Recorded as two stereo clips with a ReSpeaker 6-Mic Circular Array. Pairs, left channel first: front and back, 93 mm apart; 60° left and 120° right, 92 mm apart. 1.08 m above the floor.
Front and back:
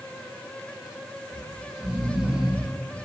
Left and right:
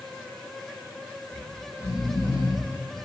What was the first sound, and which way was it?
Snoring, 100° left.